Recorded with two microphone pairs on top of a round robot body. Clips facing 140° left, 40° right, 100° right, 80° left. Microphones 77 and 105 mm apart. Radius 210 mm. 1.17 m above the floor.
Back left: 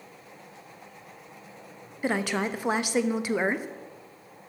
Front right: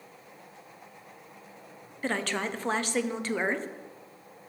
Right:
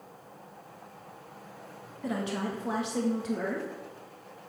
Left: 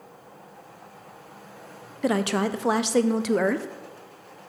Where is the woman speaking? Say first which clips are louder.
Back left 3 dB, left 9 dB; 60° left, 0.7 m.